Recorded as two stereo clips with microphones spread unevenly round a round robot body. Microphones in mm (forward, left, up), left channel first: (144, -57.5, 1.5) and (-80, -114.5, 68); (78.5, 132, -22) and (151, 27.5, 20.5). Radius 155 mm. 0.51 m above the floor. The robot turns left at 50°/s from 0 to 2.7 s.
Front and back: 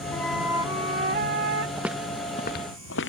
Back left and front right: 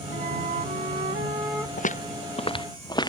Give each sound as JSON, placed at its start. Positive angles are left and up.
{"t": 0.1, "sound": "a flute", "azimuth_deg": -65}
{"t": 1.8, "sound": "footsteps", "azimuth_deg": 115}